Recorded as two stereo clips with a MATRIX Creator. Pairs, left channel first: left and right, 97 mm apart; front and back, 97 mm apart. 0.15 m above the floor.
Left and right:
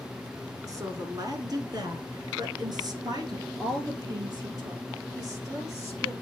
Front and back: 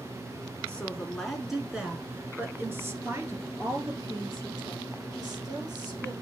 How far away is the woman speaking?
About 1.5 m.